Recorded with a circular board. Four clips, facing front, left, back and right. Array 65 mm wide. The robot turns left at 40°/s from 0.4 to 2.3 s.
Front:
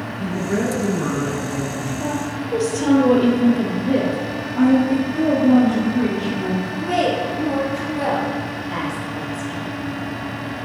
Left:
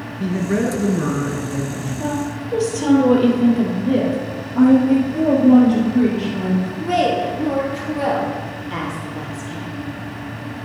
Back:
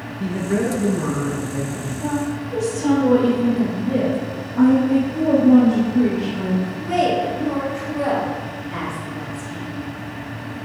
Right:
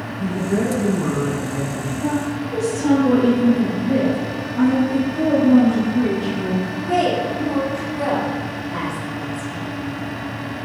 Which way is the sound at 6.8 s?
60° left.